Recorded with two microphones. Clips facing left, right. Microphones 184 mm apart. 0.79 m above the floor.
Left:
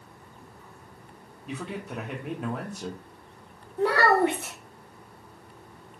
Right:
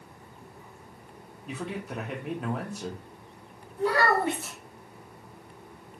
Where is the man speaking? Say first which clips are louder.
Even; centre (ahead or behind), 0.6 m.